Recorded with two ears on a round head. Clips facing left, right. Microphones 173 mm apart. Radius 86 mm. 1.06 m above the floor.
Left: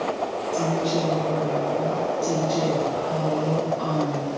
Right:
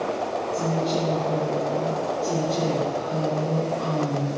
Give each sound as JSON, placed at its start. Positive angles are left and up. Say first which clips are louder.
{"t": 0.5, "sound": "a woman speaking", "louder": "left 2 dB", "side_deg": 55, "distance_m": 2.0}